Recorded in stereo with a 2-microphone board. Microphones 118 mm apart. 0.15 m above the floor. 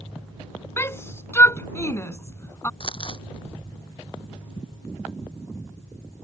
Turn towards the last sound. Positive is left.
turn(degrees=45)  # may be behind; listen again after turning